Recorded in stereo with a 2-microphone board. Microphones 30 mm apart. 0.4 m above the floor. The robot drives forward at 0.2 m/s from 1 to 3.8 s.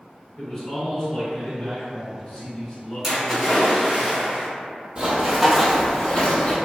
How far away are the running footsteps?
About 0.8 m.